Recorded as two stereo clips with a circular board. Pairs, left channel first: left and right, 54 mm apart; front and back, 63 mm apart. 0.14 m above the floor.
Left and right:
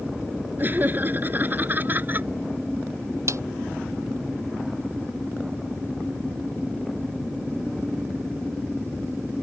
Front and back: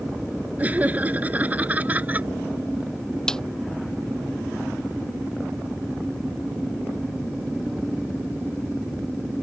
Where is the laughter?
125° right.